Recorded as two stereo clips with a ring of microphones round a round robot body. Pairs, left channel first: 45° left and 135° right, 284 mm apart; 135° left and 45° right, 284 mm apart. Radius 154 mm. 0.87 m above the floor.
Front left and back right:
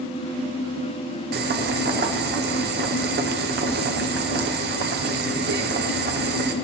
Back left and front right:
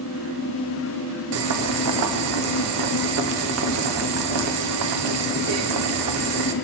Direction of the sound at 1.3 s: 80° right.